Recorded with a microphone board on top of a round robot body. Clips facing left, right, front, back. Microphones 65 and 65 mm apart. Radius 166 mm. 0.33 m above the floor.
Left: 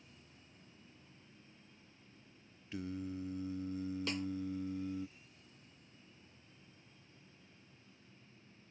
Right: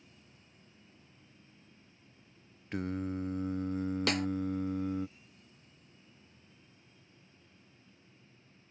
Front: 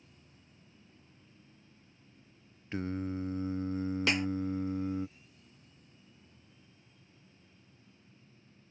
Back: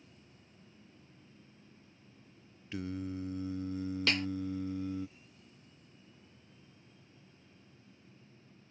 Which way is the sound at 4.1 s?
75° right.